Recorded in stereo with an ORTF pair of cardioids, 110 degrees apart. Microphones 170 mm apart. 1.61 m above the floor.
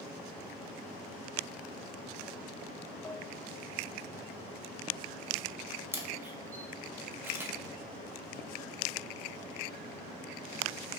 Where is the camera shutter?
15° right, 1.6 m.